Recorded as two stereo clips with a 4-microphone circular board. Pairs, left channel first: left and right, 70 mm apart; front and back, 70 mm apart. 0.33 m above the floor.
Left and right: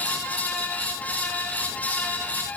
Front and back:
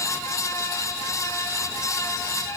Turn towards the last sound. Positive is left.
No sound to turn to.